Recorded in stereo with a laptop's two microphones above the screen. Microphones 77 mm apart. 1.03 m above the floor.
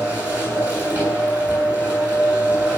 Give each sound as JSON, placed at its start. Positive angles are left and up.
{"t": 0.0, "sound": "a machine running", "side_deg": -20, "distance_m": 7.0}